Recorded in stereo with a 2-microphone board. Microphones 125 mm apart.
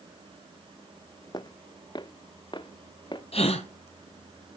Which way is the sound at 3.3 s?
55° left (ahead or behind).